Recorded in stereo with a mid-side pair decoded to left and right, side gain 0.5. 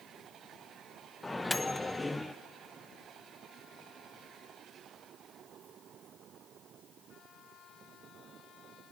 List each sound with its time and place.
1.2 s a microwave: 15° left, 0.6 m